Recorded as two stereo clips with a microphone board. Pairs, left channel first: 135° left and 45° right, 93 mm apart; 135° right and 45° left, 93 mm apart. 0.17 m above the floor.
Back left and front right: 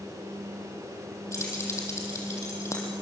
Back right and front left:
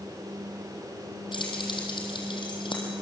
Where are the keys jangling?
165° right, 4.5 m.